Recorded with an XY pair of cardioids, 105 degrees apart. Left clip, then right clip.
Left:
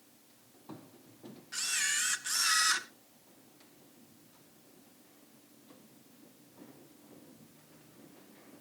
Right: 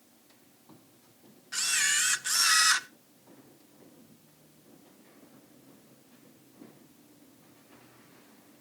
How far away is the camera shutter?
About 0.8 m.